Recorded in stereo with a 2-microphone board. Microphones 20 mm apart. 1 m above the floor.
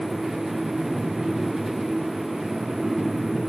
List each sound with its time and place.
Only background noise.